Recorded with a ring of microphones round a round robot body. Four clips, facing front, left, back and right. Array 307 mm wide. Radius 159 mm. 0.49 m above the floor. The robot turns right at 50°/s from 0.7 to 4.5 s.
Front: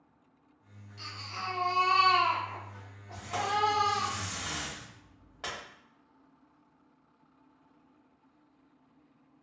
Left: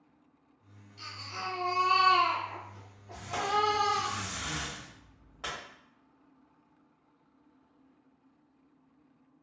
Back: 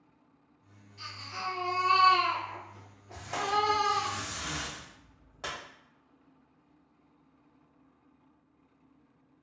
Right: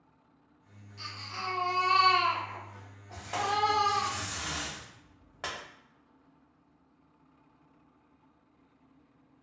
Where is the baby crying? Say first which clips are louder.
Even, back 1 dB; 40° right, 1.4 m; by 4.1 s 120° left, 1.4 m.